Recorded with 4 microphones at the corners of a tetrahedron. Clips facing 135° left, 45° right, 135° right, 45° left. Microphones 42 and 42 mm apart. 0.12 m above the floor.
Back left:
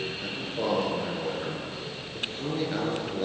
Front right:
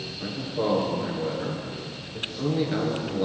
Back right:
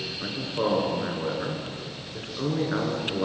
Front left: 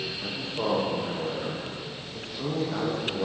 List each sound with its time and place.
0.2 s a man speaking: 130° right, 2 m